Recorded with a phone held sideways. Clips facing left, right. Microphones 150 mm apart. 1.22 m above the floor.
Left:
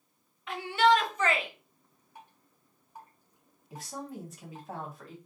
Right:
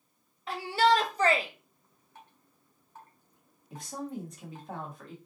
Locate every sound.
0.5 s a shout: 35° right (ahead or behind), 0.7 m
2.1 s dripping: 15° left (ahead or behind), 1.0 m
3.7 s a woman speaking: centre (ahead or behind), 1.1 m